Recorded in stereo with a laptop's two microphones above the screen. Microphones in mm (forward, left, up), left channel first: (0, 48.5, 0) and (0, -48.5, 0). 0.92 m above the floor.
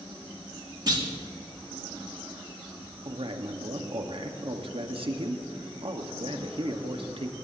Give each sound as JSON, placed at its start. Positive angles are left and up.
{"t": 0.9, "sound": "a clunk", "side_deg": -45, "distance_m": 2.0}
{"t": 3.0, "sound": "a man speaking", "side_deg": -60, "distance_m": 1.3}